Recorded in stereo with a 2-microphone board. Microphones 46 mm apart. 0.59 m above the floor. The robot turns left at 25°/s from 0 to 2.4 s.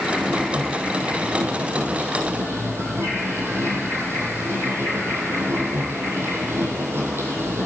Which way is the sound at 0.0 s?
Straight ahead.